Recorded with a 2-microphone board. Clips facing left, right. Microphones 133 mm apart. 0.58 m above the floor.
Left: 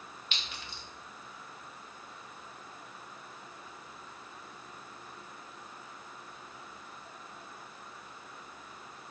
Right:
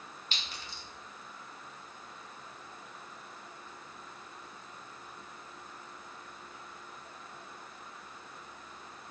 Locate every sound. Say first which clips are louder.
0.3 s a clink: even; 35° right (ahead or behind), 0.6 m